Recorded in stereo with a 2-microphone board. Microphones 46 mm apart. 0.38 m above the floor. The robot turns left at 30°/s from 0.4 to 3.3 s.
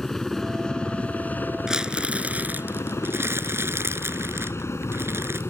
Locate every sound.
0.0 s a helicopter: 5° left (ahead or behind); by 5.5 s 70° left (ahead or behind)
1.7 s crumpling: 15° right; by 5.4 s 60° right